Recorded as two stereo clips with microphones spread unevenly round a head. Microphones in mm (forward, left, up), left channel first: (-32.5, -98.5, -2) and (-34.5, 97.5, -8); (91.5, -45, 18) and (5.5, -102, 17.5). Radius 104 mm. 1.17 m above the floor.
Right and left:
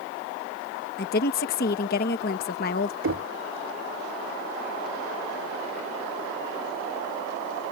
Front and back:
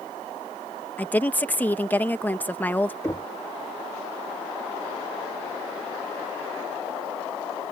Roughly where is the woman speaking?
Ahead right.